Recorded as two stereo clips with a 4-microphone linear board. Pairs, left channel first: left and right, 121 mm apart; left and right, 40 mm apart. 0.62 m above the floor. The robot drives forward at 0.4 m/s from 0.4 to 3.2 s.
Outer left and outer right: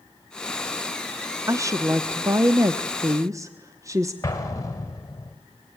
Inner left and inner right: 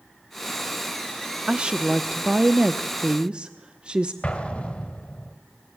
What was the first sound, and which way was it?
A woman speaking, 25° right (ahead or behind).